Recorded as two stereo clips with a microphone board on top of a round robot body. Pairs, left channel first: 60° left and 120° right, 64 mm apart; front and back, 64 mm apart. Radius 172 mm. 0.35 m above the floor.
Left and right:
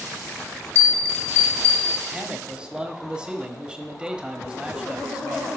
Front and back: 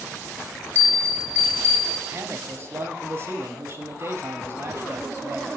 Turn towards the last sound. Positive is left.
turn(degrees=170)